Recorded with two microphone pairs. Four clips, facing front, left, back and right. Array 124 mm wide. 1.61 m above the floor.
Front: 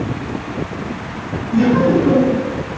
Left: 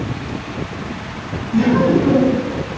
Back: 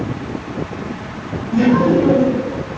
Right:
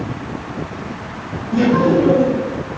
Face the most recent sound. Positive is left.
turn(degrees=-140)